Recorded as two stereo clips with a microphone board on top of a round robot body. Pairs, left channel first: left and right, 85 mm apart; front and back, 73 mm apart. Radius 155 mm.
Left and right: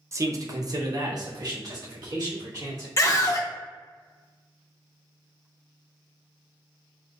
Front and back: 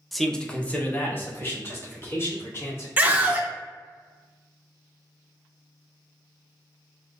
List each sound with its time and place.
0.1 s a man speaking: 90° right, 0.7 m; by 2.9 s 50° right, 2 m
3.0 s a scream: 120° left, 1.0 m